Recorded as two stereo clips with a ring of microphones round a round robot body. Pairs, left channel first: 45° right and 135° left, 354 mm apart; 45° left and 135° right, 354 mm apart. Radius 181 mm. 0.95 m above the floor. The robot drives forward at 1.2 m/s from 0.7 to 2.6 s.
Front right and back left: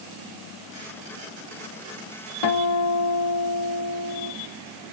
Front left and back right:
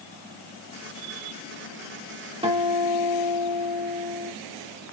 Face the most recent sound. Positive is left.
turn(degrees=-65)